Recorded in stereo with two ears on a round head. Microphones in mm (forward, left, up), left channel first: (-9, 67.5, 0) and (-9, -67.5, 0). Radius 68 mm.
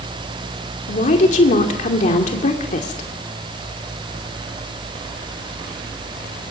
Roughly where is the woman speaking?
Left.